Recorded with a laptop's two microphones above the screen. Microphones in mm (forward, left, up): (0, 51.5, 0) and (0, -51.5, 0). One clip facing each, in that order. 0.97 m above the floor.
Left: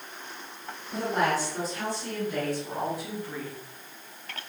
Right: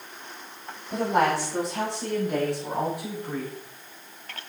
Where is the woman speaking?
85° right, 8 m; by 3.5 s 70° right (ahead or behind), 5.5 m.